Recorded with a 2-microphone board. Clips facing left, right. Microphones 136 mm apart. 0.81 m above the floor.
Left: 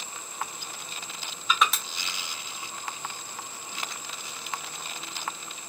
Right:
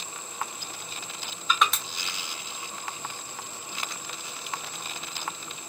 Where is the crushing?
Centre (ahead or behind), 0.9 m.